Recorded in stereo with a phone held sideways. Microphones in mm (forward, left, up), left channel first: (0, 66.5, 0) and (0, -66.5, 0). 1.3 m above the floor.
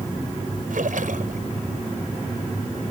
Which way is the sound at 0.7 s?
80° right.